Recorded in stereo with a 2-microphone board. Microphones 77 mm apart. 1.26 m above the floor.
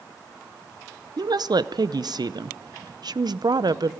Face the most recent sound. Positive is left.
turn(degrees=-65)  # may be behind; listen again after turning